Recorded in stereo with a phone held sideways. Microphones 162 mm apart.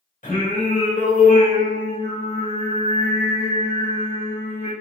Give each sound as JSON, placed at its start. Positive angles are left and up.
{"t": 0.2, "sound": "singing", "side_deg": 55, "distance_m": 3.0}